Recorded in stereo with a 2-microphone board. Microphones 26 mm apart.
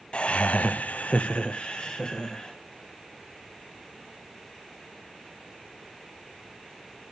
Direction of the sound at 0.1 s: 40° left (ahead or behind).